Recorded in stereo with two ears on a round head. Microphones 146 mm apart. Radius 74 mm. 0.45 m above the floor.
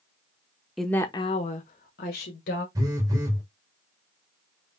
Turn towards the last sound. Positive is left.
turn(degrees=-20)  # may be behind; listen again after turning